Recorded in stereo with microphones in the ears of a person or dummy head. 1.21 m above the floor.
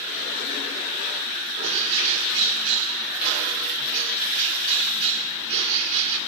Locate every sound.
1.6 s a bird: 75° right (ahead or behind), 1.7 m